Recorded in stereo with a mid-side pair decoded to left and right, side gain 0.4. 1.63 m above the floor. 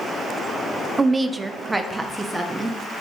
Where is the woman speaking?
30° right, 0.5 m; by 2.8 s 5° right, 2.0 m.